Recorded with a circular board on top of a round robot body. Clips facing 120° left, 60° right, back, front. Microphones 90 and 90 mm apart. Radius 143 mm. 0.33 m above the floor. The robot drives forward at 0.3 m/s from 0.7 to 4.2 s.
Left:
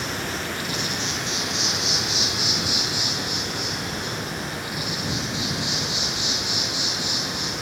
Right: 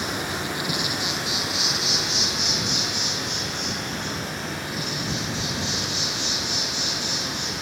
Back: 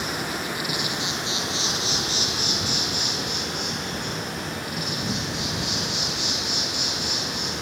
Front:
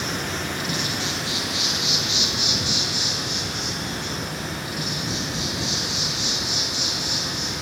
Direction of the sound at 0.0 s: 115° right.